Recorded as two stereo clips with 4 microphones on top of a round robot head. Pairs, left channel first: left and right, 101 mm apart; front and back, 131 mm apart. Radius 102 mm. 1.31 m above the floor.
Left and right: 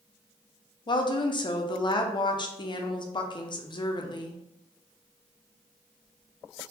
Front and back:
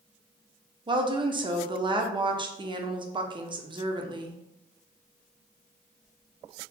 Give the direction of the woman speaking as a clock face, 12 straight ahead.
8 o'clock.